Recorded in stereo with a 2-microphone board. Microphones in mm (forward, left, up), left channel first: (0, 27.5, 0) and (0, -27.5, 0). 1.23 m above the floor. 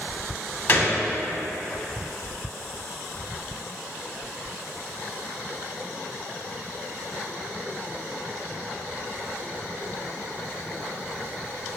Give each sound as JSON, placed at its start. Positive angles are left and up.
{"t": 0.7, "sound": "a gunshot", "side_deg": 45, "distance_m": 1.5}